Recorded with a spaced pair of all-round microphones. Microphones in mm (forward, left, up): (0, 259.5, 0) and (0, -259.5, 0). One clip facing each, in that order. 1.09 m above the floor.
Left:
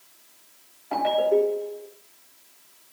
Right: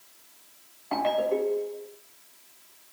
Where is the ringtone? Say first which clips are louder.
Left 5 dB; 25° right (ahead or behind), 3.5 m.